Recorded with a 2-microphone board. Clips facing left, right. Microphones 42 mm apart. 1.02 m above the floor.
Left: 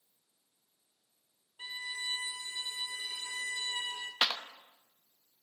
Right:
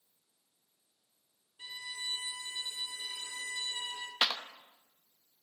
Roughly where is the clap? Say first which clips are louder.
Even; centre.